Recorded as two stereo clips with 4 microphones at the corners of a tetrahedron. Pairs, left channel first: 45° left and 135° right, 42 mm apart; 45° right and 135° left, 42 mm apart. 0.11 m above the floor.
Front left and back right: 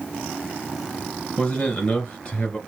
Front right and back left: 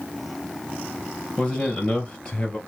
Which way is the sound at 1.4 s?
10° left.